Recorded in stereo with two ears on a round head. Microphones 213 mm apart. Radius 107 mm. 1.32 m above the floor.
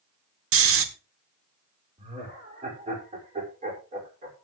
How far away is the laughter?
About 5.5 m.